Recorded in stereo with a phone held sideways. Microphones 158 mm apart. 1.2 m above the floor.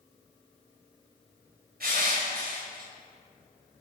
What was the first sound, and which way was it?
Crushing, 70° right (ahead or behind).